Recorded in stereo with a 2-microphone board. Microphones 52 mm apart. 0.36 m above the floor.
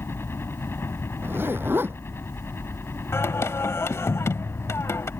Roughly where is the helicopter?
Left.